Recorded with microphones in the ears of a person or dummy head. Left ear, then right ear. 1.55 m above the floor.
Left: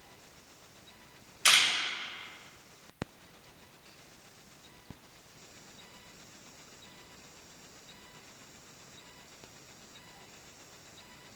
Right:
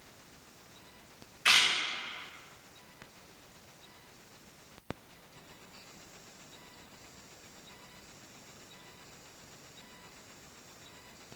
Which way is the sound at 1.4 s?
75° left (ahead or behind).